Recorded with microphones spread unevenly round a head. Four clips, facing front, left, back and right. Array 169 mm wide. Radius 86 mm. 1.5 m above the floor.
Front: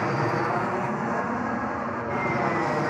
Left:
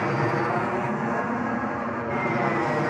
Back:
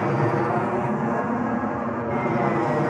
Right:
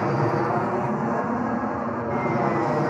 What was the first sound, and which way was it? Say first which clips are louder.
An aircraft: right 2 dB, back 3 dB; 155° right.